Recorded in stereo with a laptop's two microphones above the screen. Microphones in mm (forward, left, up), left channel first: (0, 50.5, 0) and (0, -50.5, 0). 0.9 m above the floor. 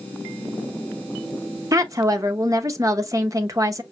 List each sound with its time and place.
1.7 s a woman speaking: 35° right (ahead or behind), 0.6 m